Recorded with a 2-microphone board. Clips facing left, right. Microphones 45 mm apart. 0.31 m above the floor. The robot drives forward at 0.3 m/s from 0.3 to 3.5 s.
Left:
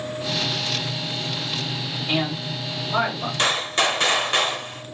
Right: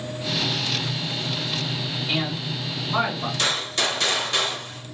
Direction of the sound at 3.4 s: 35° left (ahead or behind).